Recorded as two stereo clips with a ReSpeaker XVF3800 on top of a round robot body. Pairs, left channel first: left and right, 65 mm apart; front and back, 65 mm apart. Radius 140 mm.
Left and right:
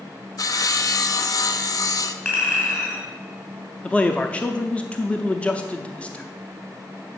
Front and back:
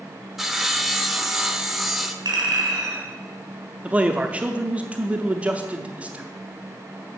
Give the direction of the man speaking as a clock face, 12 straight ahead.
7 o'clock.